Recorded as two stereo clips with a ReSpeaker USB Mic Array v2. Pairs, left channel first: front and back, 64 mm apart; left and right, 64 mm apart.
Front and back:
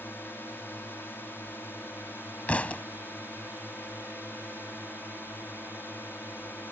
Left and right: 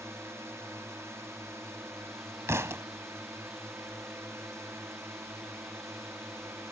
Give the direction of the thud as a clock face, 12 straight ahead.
2 o'clock.